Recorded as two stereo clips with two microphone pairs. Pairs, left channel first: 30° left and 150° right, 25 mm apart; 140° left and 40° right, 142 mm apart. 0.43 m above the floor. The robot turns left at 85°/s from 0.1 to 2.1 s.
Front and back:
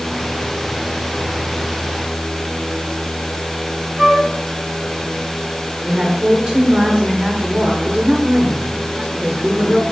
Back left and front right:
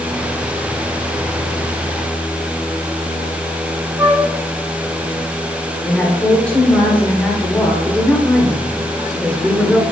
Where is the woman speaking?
150° right, 1.2 m.